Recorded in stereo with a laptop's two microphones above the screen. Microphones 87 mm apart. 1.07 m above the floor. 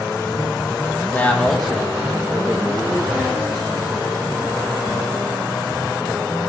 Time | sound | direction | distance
1.1 | a man speaking | 20° left (ahead or behind) | 1.0 m